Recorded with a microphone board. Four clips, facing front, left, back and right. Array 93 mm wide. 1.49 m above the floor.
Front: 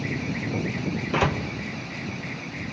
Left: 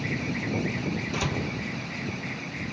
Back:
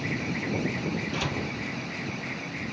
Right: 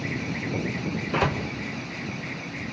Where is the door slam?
35° right, 1.2 m.